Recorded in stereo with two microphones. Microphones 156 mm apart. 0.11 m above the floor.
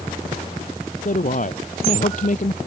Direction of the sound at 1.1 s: 55° left (ahead or behind).